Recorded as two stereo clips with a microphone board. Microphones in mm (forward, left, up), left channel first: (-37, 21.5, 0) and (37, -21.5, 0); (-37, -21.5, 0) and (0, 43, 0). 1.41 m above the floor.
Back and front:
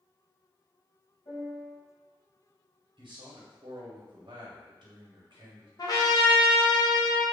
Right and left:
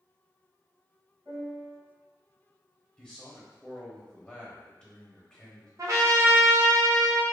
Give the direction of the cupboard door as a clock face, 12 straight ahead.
No cupboard door in this recording.